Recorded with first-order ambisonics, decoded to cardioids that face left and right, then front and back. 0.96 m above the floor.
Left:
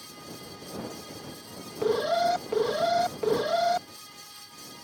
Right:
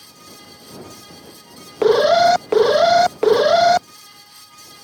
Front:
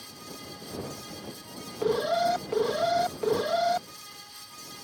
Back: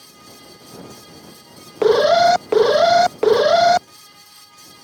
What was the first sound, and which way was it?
An alarm, 135° right.